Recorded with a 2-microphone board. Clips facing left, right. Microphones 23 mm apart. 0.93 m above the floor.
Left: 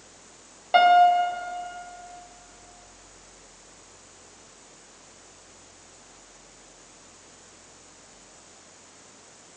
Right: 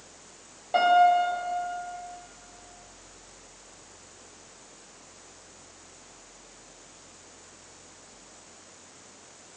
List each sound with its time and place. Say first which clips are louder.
0.7 s a piano: left 3 dB; 45° left (ahead or behind), 2.5 m